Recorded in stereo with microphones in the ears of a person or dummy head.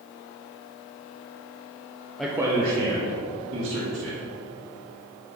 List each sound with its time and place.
2.2 s a man speaking: 5° left (ahead or behind), 0.6 m; by 4.2 s 55° right (ahead or behind), 2.5 m